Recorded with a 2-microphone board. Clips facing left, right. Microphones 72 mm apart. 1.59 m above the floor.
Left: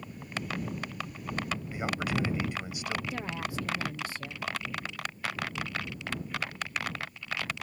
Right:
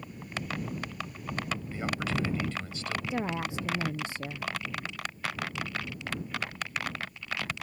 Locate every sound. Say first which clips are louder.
1.7 s a man speaking: left 1 dB; 15° left (ahead or behind)
3.1 s a woman speaking: right 3 dB; 25° right (ahead or behind)